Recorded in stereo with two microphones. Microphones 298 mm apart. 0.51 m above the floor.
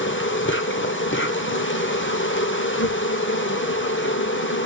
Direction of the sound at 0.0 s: 40° left (ahead or behind).